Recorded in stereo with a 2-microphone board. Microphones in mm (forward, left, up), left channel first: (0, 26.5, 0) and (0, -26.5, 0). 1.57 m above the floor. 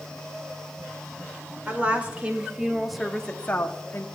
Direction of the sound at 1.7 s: 35° right (ahead or behind).